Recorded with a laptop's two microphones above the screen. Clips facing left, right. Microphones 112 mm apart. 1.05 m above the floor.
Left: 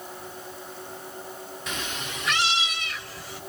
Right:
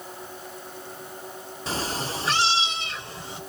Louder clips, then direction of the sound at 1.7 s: Right 6 dB; 30° right (ahead or behind).